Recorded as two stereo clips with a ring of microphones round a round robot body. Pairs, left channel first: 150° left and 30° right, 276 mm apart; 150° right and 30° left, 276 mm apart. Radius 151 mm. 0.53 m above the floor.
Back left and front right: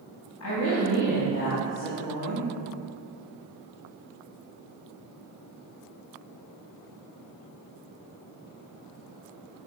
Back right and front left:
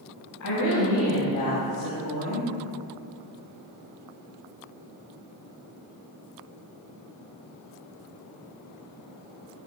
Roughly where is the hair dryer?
I don't hear a hair dryer.